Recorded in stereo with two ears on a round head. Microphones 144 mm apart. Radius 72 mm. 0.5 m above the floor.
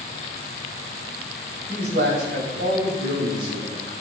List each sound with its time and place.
1.7 s a man speaking: 65° right (ahead or behind), 1.8 m; by 3.9 s 80° right, 4.5 m